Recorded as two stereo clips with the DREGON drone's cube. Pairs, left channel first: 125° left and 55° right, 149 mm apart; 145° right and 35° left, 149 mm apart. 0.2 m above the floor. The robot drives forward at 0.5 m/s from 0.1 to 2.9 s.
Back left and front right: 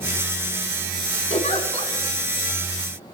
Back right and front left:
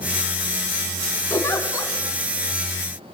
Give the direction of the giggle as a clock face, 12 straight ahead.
7 o'clock.